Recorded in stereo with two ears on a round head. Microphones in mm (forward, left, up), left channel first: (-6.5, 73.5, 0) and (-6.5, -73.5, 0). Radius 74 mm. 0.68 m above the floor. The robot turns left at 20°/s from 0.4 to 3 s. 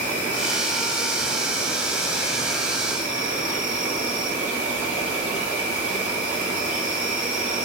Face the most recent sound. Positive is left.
turn(degrees=-10)